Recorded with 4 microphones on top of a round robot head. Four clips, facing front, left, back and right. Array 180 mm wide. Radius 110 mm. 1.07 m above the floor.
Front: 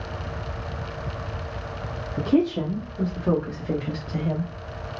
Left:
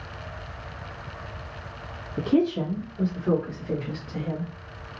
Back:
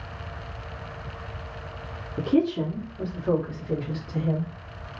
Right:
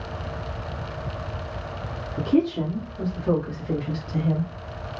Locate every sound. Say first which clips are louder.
2.2 s a woman speaking: right 1 dB, front 1 dB; 35° left, 1.8 m; by 4.5 s 30° right, 1.2 m